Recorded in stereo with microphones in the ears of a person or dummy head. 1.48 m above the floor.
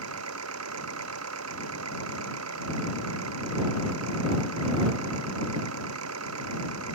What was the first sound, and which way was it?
An engine running, 90° right.